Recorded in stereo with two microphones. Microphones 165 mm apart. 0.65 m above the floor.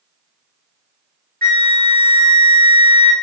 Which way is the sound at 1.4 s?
75° right (ahead or behind).